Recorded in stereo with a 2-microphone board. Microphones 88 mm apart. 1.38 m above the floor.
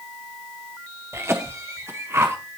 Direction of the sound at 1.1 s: 30° right (ahead or behind).